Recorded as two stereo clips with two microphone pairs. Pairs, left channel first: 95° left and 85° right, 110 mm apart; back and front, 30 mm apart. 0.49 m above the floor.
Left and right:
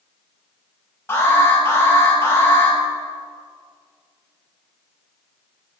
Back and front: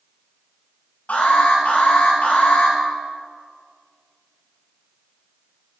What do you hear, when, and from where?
1.1 s an alarm: 160° left, 5 m